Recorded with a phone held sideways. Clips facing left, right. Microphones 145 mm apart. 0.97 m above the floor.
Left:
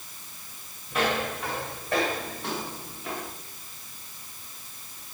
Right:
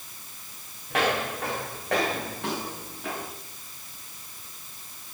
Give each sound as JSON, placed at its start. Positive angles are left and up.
{"t": 0.9, "sound": "footsteps", "side_deg": -70, "distance_m": 6.0}